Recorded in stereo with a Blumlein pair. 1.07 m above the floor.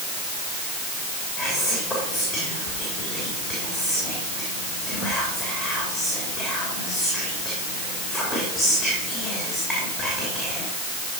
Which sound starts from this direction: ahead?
Whispering, at 1.4 s.